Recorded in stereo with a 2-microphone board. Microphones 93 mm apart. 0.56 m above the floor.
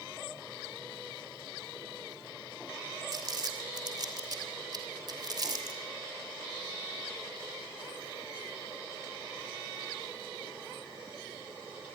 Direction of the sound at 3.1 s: 45° right (ahead or behind).